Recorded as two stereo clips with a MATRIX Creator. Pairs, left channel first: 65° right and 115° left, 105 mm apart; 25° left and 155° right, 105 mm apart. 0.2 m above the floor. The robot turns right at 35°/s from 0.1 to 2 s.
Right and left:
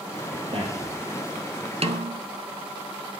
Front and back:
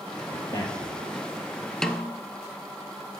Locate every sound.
0.3 s a man speaking: 75° left, 3.5 m; by 1.0 s 95° left, 3.5 m
1.8 s a snare drum: 105° left, 0.8 m; by 2.2 s 115° left, 0.8 m